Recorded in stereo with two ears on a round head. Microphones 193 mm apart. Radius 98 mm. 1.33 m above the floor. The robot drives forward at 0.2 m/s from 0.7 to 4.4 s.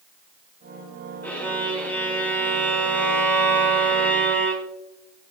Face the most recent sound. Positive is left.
turn(degrees=5)  # may be behind; listen again after turning